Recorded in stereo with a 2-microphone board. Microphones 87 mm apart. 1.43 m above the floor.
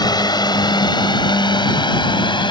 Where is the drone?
50° left (ahead or behind); by 2.5 s 65° left (ahead or behind).